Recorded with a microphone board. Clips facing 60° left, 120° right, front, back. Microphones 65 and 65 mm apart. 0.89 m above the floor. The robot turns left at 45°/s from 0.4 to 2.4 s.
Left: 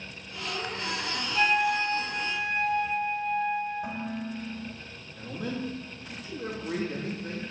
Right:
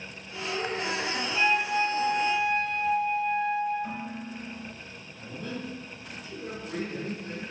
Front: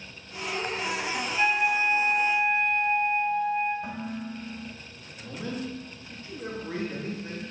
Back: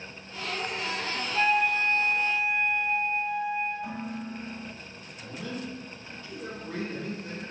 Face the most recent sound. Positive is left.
turn(degrees=60)